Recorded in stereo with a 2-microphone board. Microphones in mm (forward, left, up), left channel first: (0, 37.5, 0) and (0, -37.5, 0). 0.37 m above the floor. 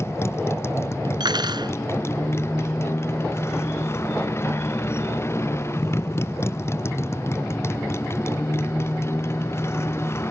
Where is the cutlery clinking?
75° right (ahead or behind).